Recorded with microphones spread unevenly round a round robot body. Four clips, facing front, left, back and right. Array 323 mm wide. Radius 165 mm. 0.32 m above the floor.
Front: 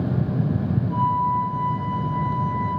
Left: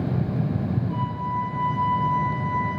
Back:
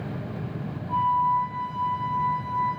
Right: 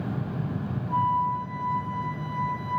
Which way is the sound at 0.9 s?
150° right.